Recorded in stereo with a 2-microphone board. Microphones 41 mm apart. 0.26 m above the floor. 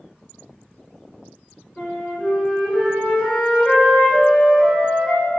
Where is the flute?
25° left (ahead or behind), 1.9 m.